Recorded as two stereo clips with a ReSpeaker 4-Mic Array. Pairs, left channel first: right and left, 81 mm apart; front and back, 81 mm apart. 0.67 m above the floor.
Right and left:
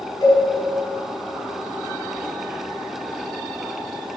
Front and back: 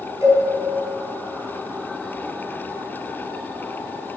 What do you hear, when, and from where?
0.2 s a cowbell: 125° right, 5.5 m